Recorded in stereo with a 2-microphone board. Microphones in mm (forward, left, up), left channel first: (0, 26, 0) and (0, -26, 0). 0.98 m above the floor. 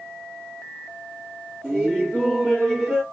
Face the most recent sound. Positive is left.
turn(degrees=-15)  # may be behind; listen again after turning